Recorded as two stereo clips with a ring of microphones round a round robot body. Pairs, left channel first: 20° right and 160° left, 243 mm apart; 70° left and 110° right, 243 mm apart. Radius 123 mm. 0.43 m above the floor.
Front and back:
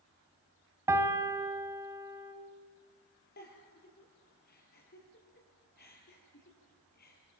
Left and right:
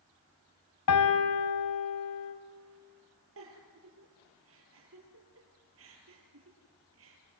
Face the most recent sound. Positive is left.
turn(degrees=-75)